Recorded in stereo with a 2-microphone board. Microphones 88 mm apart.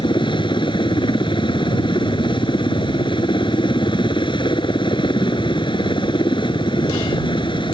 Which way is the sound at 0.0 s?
65° left (ahead or behind).